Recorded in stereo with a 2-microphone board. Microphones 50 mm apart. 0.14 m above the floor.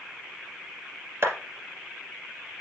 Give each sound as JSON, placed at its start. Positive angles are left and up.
{"t": 1.2, "sound": "a clap", "side_deg": -55, "distance_m": 2.5}